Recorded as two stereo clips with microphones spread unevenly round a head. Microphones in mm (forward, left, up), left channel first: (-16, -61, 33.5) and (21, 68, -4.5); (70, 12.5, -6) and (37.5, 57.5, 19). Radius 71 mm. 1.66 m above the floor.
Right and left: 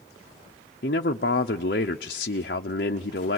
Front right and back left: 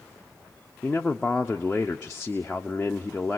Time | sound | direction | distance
0.8 | a man speaking | 135° right | 0.9 m